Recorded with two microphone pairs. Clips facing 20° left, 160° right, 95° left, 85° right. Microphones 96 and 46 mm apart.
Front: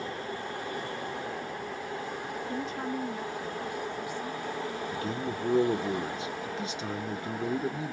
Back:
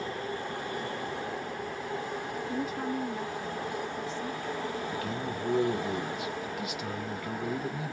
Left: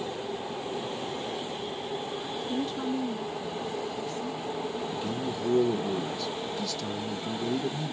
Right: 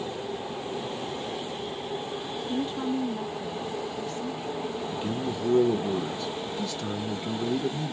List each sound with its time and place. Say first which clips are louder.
2.5 s a woman speaking: back 2 dB, right 2 dB; 95° right, 0.7 m; by 5.9 s 50° right, 2.0 m
4.9 s a man speaking: front 1 dB, right 2 dB; 35° right, 0.8 m